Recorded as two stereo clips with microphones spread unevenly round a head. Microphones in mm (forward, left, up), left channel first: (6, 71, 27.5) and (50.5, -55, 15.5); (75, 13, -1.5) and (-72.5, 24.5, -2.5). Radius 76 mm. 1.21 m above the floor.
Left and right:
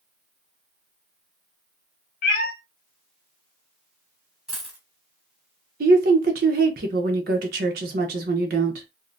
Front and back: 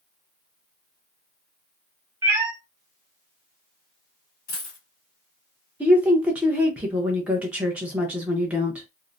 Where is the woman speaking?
105° right, 0.9 m.